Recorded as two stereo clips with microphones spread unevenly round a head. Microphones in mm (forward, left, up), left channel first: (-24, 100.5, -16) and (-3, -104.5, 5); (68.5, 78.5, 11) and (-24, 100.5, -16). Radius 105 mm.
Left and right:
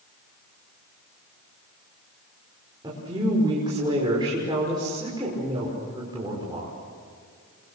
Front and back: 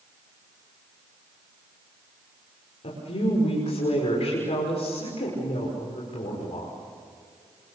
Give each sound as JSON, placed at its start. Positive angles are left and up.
{"t": 2.8, "sound": "a woman speaking", "azimuth_deg": -15, "distance_m": 6.0}